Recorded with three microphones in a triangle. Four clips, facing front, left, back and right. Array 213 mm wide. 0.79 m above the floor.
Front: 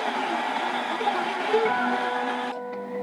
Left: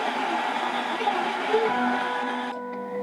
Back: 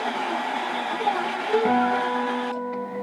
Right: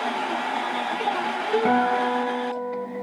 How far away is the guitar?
About 1.2 m.